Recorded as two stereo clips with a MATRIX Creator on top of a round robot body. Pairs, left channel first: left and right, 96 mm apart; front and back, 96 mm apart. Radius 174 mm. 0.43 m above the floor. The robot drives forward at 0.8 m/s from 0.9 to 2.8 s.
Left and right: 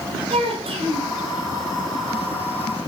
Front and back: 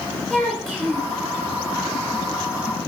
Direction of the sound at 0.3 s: 85° right.